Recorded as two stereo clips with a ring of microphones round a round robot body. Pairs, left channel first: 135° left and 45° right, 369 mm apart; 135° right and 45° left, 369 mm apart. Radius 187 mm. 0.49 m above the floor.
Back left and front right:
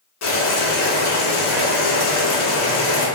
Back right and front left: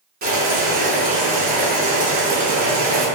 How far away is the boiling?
About 1.1 m.